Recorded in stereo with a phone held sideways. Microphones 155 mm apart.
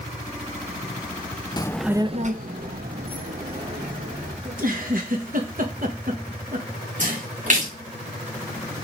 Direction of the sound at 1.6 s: 25° left (ahead or behind).